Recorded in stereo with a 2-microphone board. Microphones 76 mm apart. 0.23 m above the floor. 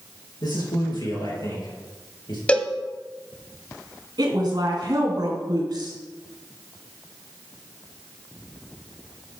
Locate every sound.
0.4 s a man speaking: 60° left (ahead or behind), 4 m
2.5 s a cowbell: 15° left (ahead or behind), 0.8 m
4.2 s a woman speaking: 60° right (ahead or behind), 2.5 m